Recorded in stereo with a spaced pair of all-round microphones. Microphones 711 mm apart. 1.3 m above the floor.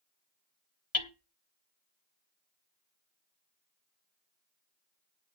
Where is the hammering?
55° left (ahead or behind), 1.3 m.